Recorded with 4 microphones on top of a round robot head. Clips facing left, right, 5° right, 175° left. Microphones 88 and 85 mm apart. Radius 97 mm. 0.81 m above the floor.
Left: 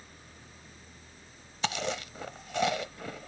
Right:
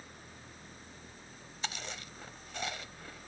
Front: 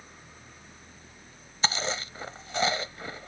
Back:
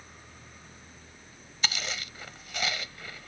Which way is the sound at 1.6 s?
55° left.